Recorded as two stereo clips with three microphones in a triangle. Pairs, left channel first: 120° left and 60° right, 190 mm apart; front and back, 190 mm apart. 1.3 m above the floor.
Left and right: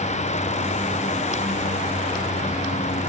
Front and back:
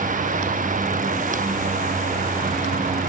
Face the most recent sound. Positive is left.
No sound to turn to.